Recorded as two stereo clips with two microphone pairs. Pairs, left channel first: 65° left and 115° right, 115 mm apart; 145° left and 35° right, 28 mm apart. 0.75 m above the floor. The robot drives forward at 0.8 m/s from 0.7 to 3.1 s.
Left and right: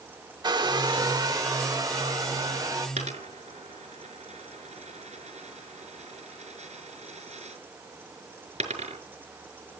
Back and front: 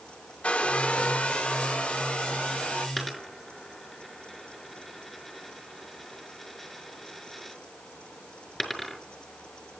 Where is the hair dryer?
170° right, 1.0 m; by 2.9 s 175° right, 2.5 m.